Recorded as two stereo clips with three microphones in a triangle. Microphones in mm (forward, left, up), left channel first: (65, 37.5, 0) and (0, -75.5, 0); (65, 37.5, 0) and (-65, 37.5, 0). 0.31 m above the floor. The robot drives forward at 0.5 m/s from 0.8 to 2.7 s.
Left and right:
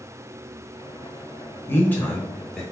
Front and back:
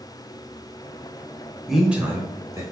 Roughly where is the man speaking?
Left.